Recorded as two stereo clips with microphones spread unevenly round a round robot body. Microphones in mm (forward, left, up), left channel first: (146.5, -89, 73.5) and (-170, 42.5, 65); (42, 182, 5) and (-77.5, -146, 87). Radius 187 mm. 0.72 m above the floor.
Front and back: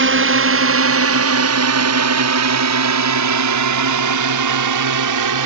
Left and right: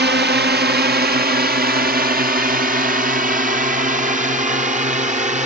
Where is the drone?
175° right; by 5.5 s 175° left.